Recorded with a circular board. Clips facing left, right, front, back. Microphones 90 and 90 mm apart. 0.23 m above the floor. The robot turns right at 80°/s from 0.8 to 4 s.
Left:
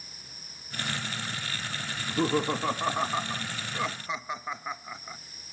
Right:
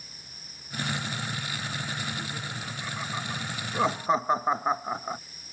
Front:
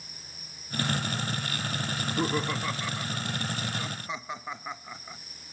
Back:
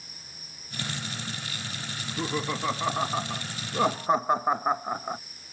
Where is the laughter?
55° left; by 5.2 s 140° right.